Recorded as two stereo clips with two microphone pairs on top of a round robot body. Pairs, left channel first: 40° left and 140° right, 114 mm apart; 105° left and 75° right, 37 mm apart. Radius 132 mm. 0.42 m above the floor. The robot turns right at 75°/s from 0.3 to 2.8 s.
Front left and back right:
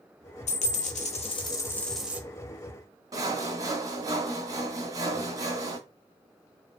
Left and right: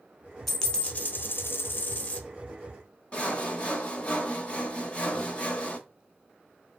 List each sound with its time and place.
0.5 s a dropped coin: 20° left, 1.0 m; by 2.2 s 150° left, 1.0 m
3.1 s sawing: 165° left, 0.9 m